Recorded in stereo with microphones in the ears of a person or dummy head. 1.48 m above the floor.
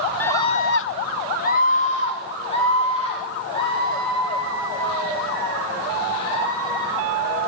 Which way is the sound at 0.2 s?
15° left (ahead or behind).